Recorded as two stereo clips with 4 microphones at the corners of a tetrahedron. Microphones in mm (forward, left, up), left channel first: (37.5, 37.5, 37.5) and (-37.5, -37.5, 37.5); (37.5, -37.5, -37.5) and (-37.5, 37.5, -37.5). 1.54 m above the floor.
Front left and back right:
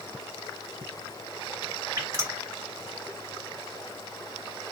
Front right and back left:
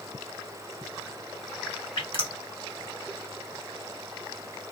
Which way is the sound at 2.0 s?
75° right.